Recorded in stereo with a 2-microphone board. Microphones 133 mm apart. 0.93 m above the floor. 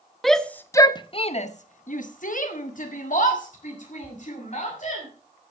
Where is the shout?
Centre (ahead or behind), 0.9 m; by 5.1 s 60° left (ahead or behind), 3 m.